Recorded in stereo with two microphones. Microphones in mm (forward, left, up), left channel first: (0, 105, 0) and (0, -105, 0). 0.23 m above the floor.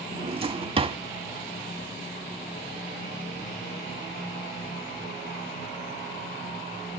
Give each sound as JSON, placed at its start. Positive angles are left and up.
{"t": 0.1, "sound": "a drawer", "side_deg": -25, "distance_m": 0.7}